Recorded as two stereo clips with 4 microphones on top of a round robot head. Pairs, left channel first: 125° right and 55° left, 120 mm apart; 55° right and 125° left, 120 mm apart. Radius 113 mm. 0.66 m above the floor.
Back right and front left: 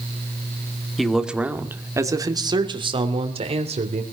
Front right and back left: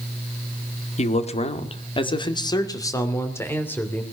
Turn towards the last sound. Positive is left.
turn(degrees=25)